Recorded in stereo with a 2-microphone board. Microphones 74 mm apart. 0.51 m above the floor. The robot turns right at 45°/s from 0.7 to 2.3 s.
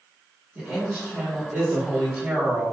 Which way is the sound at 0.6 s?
20° right (ahead or behind).